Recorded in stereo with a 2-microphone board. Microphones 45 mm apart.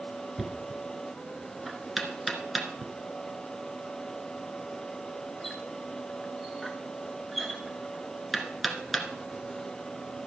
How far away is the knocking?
About 1.3 m.